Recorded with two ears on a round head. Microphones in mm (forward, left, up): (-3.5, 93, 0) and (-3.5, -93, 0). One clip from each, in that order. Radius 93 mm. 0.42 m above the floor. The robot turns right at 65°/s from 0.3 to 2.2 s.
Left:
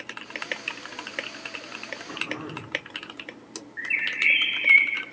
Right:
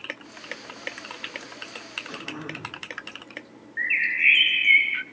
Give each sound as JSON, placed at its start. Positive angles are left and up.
{"t": 2.1, "sound": "throat clearing", "side_deg": -55, "distance_m": 8.5}
{"t": 3.8, "sound": "a bird", "side_deg": -35, "distance_m": 0.7}